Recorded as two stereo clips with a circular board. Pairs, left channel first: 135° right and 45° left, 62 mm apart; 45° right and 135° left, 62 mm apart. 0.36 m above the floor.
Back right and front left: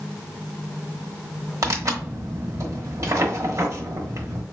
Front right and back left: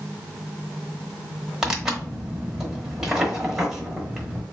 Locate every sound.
1.6 s tearing paper: 55° left, 1.0 m